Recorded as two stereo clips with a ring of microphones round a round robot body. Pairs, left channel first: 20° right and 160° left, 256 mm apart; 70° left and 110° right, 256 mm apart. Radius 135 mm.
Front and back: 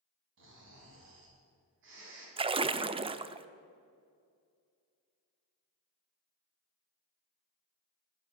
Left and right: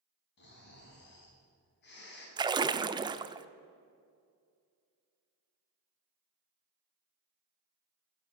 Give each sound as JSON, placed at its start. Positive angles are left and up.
{"t": 0.4, "sound": "snoring", "azimuth_deg": 115, "distance_m": 3.0}
{"t": 2.4, "sound": "a splash", "azimuth_deg": -165, "distance_m": 0.5}